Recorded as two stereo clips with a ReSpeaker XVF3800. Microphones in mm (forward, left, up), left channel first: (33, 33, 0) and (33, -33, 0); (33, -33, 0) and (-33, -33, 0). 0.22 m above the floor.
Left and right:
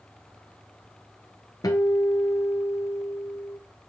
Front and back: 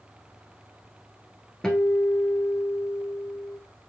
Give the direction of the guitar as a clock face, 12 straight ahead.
9 o'clock.